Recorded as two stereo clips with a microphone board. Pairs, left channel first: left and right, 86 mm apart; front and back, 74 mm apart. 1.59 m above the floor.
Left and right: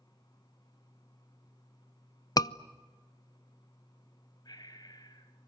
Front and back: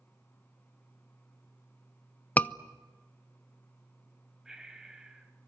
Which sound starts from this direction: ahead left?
A scream, at 2.4 s.